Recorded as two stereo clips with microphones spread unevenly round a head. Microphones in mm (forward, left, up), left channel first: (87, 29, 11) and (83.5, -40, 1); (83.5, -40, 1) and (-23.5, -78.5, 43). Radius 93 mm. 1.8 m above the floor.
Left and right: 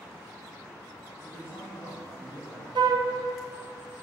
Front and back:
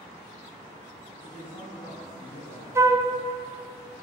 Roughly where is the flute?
Right.